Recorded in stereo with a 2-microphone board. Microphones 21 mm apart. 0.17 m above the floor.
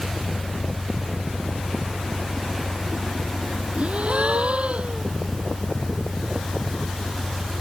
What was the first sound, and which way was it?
An engine running, 10° left (ahead or behind).